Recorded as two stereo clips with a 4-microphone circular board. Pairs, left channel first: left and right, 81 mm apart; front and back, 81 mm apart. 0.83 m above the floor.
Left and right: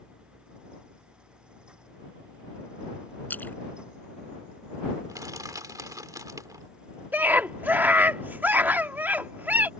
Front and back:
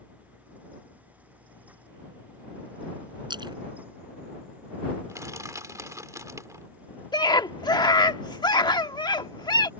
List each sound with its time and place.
3.3 s a splash: 160° left
5.1 s crushing: 130° right
7.1 s a scream: 20° right